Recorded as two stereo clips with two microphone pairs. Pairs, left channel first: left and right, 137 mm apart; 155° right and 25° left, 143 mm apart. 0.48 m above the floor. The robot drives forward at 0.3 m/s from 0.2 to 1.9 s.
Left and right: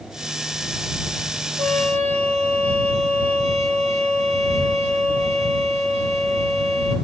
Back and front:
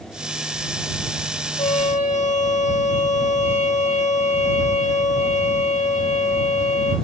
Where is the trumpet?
125° right, 7.5 m; by 7.0 s 130° right, 7.5 m.